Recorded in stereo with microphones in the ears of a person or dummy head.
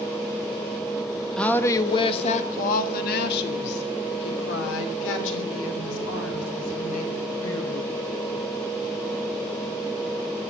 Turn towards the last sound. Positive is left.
turn(degrees=80)